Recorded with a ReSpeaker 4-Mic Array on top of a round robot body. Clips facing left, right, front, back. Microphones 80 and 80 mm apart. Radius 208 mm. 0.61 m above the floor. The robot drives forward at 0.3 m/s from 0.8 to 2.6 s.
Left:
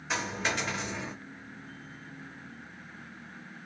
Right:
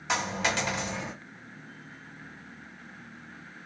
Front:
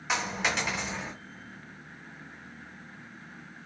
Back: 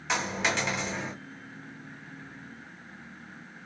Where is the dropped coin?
85° right, 1.6 m; by 1.1 s 90° right, 1.6 m.